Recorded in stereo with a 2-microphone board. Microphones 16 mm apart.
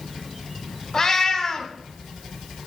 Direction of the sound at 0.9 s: 30° left (ahead or behind).